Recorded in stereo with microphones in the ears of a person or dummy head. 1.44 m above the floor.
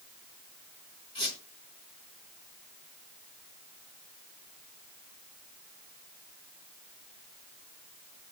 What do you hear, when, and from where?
1.1 s a squeak: 25° left (ahead or behind), 4 m